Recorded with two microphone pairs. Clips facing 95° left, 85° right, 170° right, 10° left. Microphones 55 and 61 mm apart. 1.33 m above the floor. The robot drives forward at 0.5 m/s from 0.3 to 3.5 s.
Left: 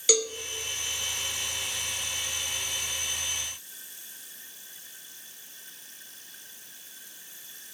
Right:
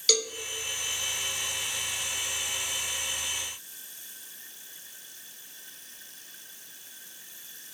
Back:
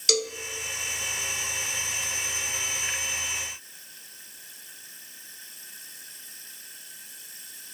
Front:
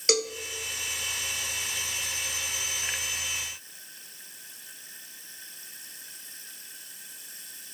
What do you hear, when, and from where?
0.1 s a cowbell: 25° left, 1.1 m